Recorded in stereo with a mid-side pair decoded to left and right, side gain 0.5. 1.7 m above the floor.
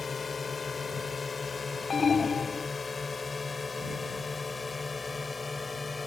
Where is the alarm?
35° left.